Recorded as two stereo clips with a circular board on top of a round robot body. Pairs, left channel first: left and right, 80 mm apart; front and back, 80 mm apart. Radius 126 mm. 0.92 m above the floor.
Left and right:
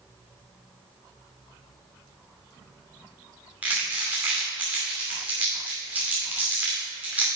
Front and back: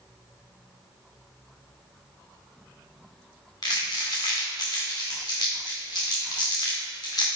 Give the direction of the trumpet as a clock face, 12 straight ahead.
I don't hear a trumpet.